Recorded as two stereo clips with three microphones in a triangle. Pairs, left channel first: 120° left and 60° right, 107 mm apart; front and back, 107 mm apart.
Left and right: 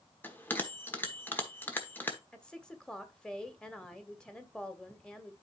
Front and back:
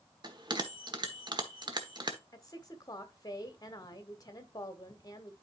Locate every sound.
0.2 s a bell: 175° right, 1.1 m
2.3 s a woman speaking: 40° left, 1.2 m